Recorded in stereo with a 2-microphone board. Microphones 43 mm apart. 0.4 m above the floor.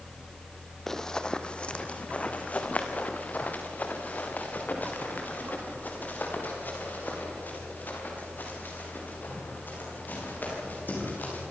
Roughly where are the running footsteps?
Centre.